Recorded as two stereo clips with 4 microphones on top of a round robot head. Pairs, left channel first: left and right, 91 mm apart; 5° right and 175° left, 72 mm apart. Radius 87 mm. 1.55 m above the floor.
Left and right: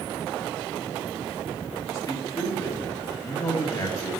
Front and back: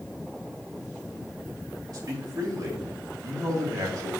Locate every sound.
1.9 s a man speaking: 140° left, 3 m